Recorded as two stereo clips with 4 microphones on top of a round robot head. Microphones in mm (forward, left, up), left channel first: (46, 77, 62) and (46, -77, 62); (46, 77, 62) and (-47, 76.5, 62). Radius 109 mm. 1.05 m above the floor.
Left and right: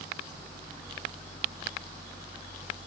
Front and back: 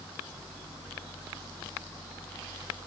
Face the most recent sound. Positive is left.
No sound to turn to.